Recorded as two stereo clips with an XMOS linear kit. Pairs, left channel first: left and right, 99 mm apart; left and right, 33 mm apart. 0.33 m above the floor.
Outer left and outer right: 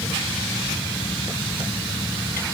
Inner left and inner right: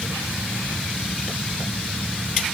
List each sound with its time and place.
Only background noise.